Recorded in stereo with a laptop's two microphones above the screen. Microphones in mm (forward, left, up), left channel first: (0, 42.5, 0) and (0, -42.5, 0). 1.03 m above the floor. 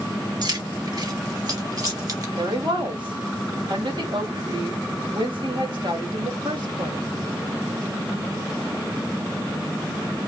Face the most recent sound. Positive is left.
turn(degrees=-65)  # may be behind; listen again after turning